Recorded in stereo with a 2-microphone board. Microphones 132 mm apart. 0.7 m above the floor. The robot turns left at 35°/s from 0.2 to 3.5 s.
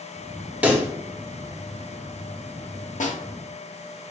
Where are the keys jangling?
No keys jangling in this recording.